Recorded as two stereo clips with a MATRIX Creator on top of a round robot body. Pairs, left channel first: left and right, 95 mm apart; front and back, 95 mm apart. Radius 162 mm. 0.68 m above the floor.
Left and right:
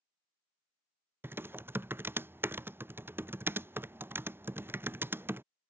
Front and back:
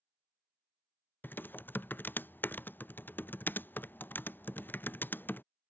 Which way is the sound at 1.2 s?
50° right.